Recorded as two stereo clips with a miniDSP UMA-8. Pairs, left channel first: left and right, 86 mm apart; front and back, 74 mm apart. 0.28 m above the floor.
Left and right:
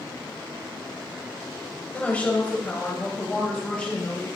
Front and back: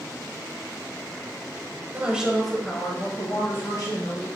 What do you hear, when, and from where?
1.9 s a woman speaking: 145° left, 1.3 m; by 4.3 s 15° left, 2.5 m